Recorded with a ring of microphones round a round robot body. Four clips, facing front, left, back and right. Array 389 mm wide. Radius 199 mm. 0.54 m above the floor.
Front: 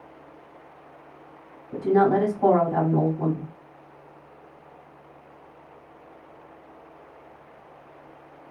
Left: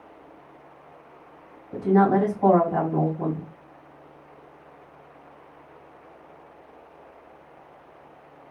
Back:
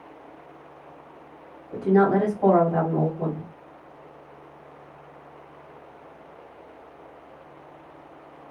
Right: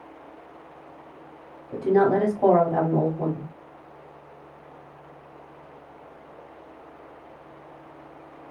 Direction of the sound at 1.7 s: 75° right.